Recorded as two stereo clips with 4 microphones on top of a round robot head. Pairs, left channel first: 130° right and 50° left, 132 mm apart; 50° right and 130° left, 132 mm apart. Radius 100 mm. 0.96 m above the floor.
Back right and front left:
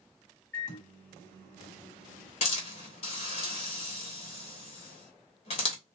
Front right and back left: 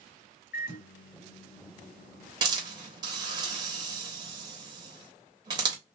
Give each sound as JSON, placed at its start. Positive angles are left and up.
{"t": 0.5, "sound": "a microwave", "azimuth_deg": -55, "distance_m": 1.2}
{"t": 2.4, "sound": "a hiss", "azimuth_deg": -170, "distance_m": 1.1}